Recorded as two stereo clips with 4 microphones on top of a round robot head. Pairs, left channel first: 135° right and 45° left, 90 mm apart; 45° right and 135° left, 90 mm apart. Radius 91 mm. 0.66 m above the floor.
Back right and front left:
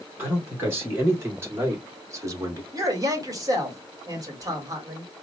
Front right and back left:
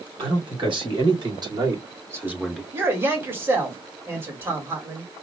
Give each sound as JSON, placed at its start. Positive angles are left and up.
{"t": 0.2, "sound": "a man speaking", "azimuth_deg": 110, "distance_m": 3.5}
{"t": 2.7, "sound": "a man speaking", "azimuth_deg": 80, "distance_m": 1.7}